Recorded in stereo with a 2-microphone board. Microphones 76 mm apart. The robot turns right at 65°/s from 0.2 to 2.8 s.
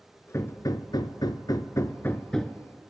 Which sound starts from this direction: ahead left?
Hammering, at 0.3 s.